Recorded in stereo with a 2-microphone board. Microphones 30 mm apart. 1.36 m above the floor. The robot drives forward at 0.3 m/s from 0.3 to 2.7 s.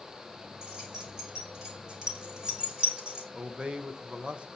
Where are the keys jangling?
30° right (ahead or behind), 4 m; by 3.2 s 35° right (ahead or behind), 3.5 m.